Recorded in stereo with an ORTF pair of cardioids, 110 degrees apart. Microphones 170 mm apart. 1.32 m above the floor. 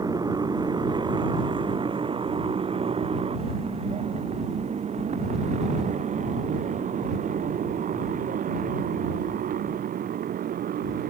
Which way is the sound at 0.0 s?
25° right.